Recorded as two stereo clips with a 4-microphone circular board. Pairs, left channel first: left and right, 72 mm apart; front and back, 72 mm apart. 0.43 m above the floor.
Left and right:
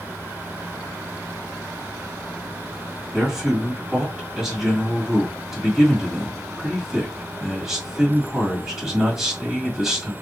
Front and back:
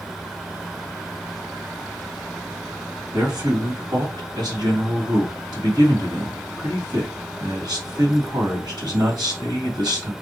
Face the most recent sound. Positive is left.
turn(degrees=-175)